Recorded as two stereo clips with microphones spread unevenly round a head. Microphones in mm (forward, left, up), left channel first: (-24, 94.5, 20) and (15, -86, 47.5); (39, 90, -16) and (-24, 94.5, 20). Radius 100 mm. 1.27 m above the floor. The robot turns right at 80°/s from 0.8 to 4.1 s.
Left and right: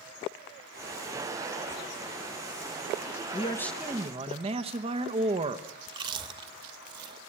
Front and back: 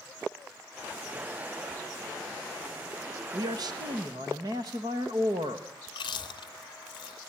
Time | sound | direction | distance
3.3 | a man speaking | 160° left | 1.1 m
5.9 | chewing | 30° right | 0.8 m